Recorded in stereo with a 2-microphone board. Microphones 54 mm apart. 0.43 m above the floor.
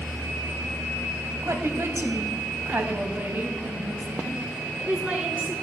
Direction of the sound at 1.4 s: 65° right (ahead or behind).